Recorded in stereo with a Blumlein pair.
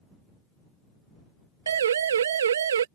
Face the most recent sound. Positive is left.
turn(degrees=-65)